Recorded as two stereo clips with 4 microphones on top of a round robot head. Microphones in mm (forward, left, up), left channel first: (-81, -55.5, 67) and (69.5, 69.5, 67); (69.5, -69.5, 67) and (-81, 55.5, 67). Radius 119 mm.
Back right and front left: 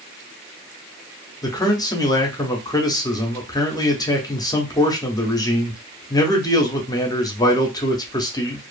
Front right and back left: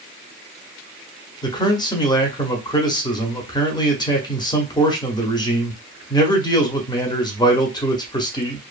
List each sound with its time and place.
1.4 s a man speaking: 90° right, 0.9 m